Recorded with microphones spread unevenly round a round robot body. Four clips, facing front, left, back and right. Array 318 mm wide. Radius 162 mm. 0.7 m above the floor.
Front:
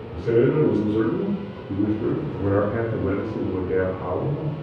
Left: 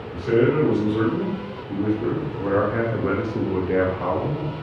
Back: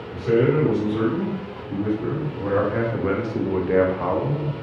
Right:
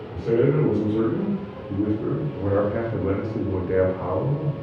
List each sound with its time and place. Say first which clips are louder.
0.1 s a man speaking: left 1 dB, even; 20° right, 1.7 m; by 4.5 s 170° left, 1.0 m